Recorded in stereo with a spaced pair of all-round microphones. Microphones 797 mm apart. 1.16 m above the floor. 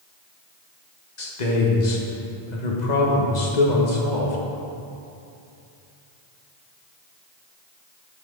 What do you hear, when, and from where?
1.2 s a man speaking: 65° left (ahead or behind), 1.4 m